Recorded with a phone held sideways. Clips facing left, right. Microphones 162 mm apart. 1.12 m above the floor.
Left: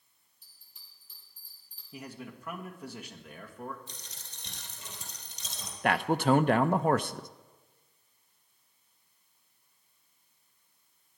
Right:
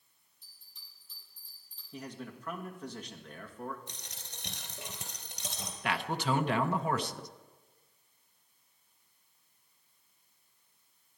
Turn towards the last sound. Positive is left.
turn(degrees=50)  # may be behind; listen again after turning